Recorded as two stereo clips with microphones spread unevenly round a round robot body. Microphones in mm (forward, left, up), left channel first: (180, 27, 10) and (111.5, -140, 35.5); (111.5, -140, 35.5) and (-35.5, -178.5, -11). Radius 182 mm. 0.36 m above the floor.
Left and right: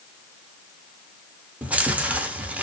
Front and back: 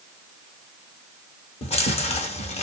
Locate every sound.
1.6 s chewing: 20° right, 0.6 m